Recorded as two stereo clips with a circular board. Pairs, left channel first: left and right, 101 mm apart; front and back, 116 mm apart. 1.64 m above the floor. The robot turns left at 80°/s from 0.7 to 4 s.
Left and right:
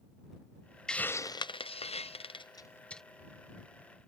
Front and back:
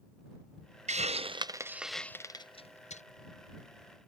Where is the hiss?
175° left; by 3.0 s straight ahead.